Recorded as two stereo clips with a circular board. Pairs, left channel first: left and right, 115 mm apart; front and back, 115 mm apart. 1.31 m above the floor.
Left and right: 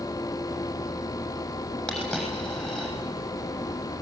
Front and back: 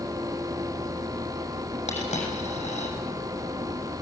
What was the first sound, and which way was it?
A dropped coin, 5° left.